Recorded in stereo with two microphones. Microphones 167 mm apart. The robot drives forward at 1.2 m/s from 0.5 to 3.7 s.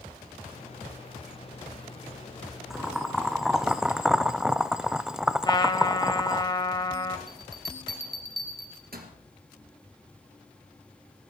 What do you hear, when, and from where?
2.7 s boiling: centre (ahead or behind), 1.7 m; by 6.4 s 5° right (ahead or behind), 0.5 m
5.4 s a trumpet: 30° left (ahead or behind), 1.0 m
7.3 s a bell: 70° right (ahead or behind), 2.5 m